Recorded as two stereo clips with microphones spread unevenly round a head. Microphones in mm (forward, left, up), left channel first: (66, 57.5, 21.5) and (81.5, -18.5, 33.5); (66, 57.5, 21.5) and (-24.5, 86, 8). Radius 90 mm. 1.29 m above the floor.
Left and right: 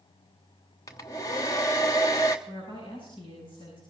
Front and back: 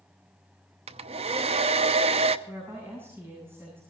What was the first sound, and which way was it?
A hair dryer, 160° left.